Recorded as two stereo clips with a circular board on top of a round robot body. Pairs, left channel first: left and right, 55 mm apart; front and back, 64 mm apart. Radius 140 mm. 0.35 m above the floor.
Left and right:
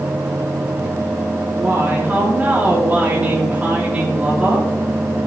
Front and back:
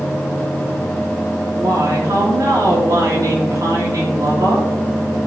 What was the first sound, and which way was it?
A woman speaking, 155° right.